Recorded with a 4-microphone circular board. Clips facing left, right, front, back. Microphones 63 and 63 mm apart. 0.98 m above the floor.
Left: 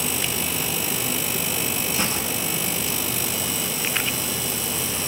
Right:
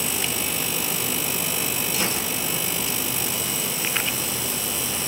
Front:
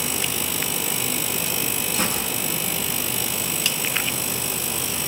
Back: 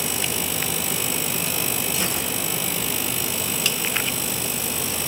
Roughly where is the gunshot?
Ahead left.